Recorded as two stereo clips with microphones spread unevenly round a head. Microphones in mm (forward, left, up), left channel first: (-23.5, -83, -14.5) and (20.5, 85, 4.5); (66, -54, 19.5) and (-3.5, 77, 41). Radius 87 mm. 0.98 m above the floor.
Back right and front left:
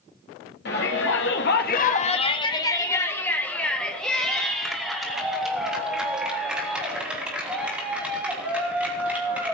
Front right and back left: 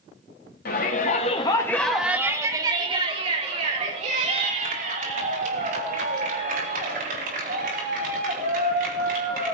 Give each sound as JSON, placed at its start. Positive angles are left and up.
{"t": 0.7, "sound": "a shout", "azimuth_deg": -80, "distance_m": 1.6}